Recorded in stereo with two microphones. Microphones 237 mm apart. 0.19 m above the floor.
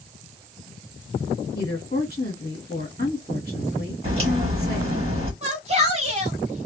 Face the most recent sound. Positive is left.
turn(degrees=-30)  # may be behind; listen again after turning